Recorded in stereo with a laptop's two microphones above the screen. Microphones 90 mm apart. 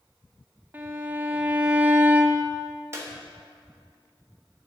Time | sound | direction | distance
0.7 | a violin | 20° right (ahead or behind) | 1.1 m
2.9 | a clap | 30° right (ahead or behind) | 1.2 m